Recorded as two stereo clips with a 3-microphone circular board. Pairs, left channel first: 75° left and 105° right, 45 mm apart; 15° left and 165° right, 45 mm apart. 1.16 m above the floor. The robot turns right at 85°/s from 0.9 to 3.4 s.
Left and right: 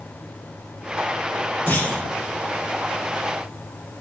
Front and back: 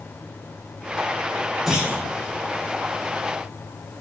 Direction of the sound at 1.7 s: 115° left.